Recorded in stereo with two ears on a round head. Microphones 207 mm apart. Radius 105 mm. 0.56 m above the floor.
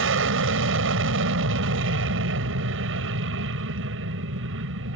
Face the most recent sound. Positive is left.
turn(degrees=-60)  # may be behind; listen again after turning